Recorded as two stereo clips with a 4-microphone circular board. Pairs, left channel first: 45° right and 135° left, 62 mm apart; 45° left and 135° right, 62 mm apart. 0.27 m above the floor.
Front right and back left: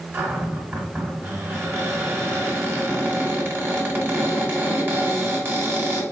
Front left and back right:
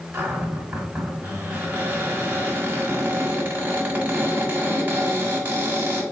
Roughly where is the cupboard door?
Behind.